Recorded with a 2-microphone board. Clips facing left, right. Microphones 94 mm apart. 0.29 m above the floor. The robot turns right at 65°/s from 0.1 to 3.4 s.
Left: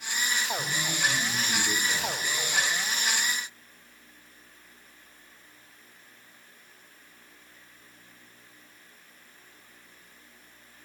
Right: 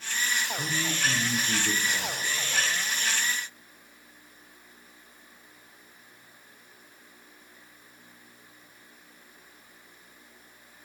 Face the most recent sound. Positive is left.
turn(degrees=90)